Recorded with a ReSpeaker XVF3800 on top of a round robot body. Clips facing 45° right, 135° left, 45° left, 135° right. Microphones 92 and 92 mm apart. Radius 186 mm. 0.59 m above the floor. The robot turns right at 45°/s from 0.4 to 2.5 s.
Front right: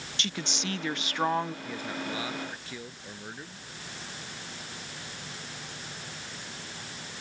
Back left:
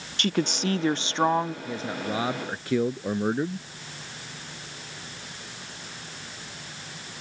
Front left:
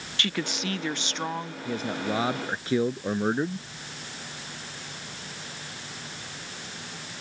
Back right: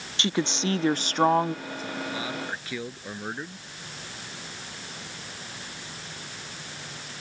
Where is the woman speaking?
160° left; by 1.6 s 145° right.